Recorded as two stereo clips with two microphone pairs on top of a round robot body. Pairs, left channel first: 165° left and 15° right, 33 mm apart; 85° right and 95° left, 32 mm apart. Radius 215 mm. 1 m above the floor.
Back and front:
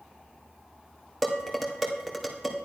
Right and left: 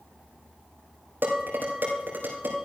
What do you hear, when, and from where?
1.2 s dishes clattering: 75° left, 2.5 m